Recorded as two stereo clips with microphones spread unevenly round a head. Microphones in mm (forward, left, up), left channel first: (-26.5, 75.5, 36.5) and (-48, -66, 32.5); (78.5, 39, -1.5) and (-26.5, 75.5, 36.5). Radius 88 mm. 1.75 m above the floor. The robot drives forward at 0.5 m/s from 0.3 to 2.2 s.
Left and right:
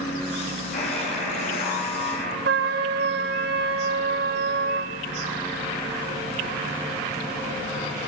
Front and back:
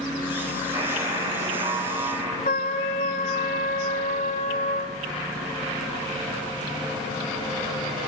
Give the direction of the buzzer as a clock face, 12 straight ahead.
9 o'clock.